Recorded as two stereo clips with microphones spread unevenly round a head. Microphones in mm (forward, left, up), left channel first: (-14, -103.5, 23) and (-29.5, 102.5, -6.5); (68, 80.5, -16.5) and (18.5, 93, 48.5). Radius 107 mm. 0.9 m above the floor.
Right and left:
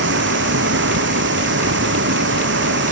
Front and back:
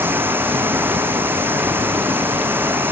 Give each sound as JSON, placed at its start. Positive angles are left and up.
{"t": 0.0, "sound": "running water", "azimuth_deg": 125}